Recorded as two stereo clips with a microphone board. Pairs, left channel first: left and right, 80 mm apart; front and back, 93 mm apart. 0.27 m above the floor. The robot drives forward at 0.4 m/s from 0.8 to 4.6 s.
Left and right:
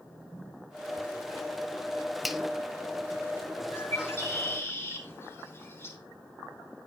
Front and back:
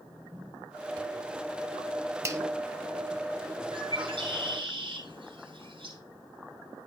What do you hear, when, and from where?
2.2 s a finger snap: 175° right, 0.8 m
3.7 s a bird: 145° left, 9.5 m